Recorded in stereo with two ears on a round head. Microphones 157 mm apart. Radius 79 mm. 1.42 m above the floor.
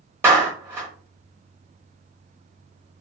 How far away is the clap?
About 1.0 m.